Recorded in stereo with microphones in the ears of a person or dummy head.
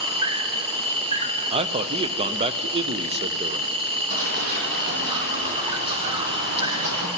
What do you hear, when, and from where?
0.0 s an insect: 25° right (ahead or behind), 0.7 m
1.5 s a man speaking: 30° right (ahead or behind), 0.6 m
4.1 s running footsteps: 50° right (ahead or behind), 4.5 m; by 7.1 s 60° right (ahead or behind), 3.5 m